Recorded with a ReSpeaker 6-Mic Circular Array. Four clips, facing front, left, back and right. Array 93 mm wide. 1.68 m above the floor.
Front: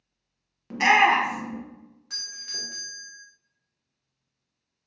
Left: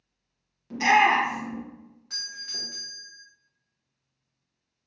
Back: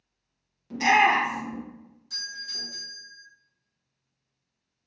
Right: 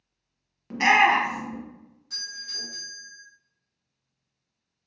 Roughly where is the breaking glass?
I don't hear breaking glass.